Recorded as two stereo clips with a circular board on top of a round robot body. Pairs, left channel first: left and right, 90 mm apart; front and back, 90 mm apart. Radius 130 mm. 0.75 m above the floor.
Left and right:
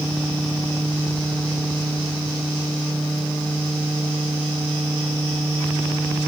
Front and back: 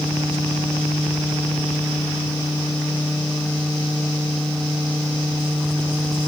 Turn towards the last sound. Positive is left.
No sound to turn to.